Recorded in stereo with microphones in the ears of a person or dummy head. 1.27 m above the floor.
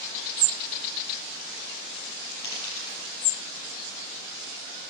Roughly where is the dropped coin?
Left.